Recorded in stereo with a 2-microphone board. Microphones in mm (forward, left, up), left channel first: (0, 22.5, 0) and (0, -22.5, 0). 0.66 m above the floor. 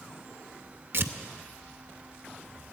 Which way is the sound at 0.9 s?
55° right (ahead or behind).